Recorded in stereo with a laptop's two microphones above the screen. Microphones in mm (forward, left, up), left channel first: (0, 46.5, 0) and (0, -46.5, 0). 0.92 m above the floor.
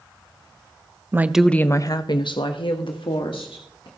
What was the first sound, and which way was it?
A woman speaking, 30° right (ahead or behind).